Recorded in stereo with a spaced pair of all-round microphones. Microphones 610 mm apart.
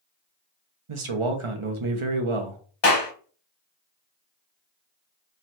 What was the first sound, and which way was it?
A man speaking, 55° right (ahead or behind).